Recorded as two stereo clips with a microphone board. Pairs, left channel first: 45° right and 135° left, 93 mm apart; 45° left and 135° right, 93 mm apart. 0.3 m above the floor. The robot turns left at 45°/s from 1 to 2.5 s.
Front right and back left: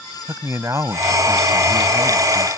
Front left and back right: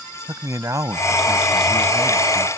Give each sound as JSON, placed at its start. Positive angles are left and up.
{"t": 0.3, "sound": "a man speaking", "azimuth_deg": -175}